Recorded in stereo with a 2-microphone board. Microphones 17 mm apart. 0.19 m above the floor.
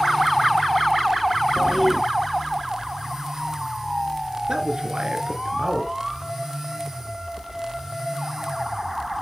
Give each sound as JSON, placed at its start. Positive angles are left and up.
{"t": 1.6, "sound": "a toilet flushing", "side_deg": 10, "distance_m": 1.1}
{"t": 4.5, "sound": "a man speaking", "side_deg": -50, "distance_m": 3.0}